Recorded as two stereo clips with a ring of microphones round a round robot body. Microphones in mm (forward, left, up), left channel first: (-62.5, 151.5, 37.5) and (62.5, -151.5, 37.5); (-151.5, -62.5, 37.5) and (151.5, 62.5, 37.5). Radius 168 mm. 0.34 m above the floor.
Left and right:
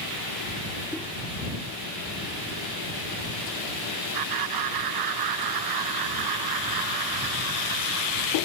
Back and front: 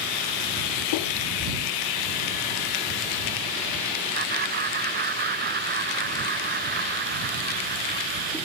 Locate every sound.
4.1 s laughter: 40° right